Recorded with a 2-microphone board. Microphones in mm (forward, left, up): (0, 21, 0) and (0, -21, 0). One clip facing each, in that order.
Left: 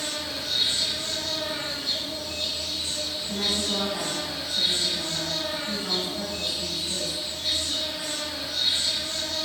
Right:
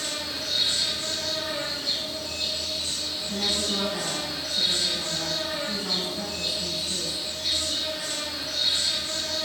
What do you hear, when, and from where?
0.0 s an insect: 25° left (ahead or behind), 1.0 m
3.2 s a woman speaking: 15° left (ahead or behind), 1.4 m